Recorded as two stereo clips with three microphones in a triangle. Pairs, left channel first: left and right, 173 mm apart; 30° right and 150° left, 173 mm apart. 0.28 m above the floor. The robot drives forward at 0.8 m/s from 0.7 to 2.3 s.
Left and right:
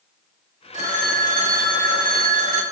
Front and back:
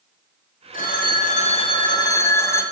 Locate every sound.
0.7 s a phone ringing: 50° right, 1.9 m; by 2.6 s 100° right, 1.6 m